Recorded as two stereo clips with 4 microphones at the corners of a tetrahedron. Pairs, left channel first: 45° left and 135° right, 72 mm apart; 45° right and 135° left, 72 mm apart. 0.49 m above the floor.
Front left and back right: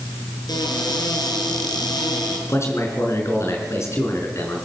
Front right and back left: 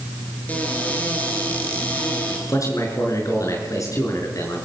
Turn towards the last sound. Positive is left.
turn(degrees=-5)